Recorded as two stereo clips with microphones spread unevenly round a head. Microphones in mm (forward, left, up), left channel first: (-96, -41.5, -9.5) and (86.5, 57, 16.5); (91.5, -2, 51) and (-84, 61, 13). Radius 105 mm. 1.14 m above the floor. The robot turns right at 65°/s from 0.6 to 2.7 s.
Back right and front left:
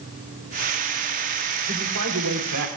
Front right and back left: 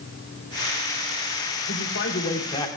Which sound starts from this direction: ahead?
A man speaking, at 1.7 s.